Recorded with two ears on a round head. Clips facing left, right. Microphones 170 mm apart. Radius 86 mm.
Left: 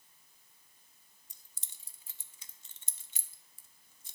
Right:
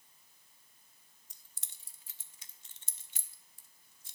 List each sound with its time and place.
1.3 s keys jangling: 75° left (ahead or behind), 0.8 m